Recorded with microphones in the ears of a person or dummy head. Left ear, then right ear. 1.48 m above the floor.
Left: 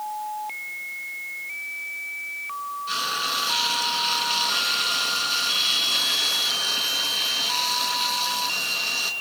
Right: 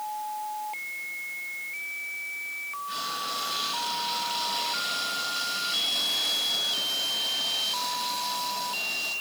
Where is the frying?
50° left (ahead or behind), 7.5 m.